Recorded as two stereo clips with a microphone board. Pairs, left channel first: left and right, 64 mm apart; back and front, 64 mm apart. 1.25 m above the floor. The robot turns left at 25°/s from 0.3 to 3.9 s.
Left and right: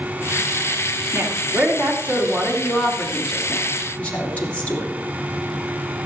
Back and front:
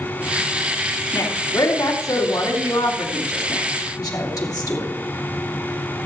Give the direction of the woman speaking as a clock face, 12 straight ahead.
4 o'clock.